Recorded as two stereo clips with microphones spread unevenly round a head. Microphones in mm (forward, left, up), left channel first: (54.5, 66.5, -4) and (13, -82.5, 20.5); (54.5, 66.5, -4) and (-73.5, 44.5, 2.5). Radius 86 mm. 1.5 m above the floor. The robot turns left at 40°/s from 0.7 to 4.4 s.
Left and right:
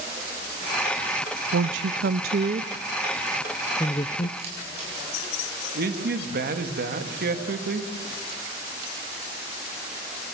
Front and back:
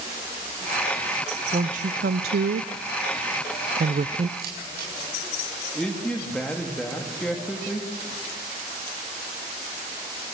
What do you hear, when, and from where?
1.5 s a woman speaking: 115° right, 0.5 m; by 4.3 s 135° left, 0.5 m
4.4 s a camera shutter: 165° right, 7 m
5.8 s a man speaking: 75° right, 2.5 m